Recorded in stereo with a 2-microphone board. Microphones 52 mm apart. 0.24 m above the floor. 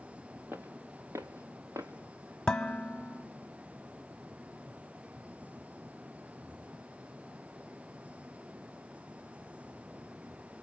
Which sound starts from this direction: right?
Footsteps, at 0.5 s.